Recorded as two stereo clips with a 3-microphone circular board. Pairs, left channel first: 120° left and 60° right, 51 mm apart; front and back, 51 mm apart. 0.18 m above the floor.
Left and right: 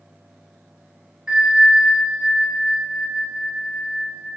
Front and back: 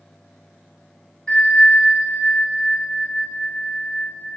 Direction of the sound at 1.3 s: 30° right.